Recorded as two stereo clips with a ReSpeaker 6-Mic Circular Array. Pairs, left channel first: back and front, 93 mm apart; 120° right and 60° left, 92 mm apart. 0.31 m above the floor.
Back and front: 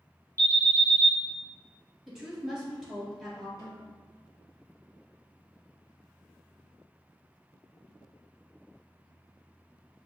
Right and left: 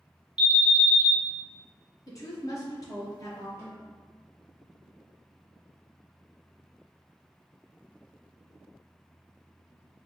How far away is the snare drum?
About 1.9 m.